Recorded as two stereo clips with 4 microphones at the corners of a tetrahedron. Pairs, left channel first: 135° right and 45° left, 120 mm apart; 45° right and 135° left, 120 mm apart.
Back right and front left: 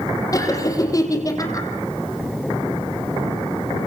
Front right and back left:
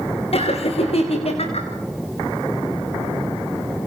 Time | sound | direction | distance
0.3 | laughter | 75° right | 5.5 m